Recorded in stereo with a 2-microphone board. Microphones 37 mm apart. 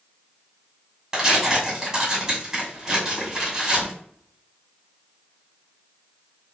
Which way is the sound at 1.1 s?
20° right (ahead or behind).